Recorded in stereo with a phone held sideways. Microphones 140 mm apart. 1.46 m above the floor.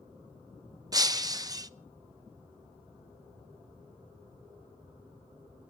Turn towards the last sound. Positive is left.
turn(degrees=-25)  # may be behind; listen again after turning